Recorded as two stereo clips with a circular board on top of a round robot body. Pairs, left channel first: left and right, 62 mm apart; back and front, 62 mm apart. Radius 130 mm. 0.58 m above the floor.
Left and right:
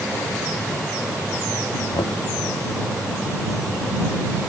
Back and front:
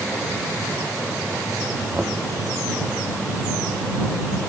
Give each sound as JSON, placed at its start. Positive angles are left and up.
{"t": 1.9, "sound": "knocking", "azimuth_deg": 75}